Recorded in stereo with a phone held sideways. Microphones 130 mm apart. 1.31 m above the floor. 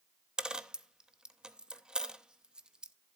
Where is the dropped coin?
5° right (ahead or behind), 0.7 m.